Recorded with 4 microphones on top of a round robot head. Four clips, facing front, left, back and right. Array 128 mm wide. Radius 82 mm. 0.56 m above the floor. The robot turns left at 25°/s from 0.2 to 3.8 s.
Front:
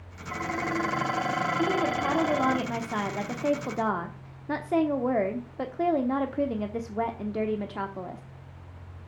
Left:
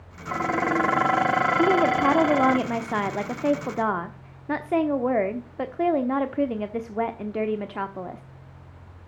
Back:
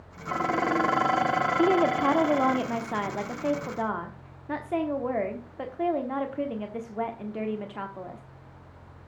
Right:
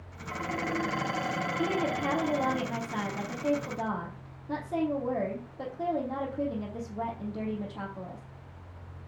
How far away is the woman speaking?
About 1.0 m.